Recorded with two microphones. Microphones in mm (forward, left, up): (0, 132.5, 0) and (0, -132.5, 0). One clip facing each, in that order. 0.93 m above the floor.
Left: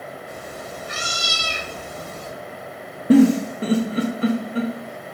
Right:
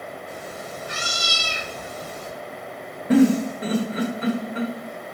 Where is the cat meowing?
50° left (ahead or behind), 1.9 m; by 2.3 s 40° left (ahead or behind), 1.0 m.